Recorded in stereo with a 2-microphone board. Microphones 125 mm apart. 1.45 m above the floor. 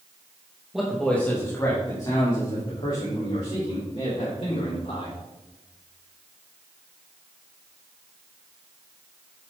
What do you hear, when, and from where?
0.7 s a man speaking: 5° right (ahead or behind), 1.6 m; by 5.2 s 55° left (ahead or behind), 6 m